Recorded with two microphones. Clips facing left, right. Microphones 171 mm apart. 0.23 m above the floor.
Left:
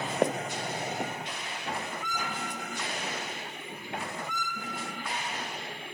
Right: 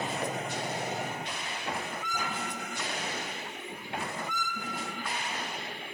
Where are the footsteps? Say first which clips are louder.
Left 5 dB; 60° left (ahead or behind), 0.5 m.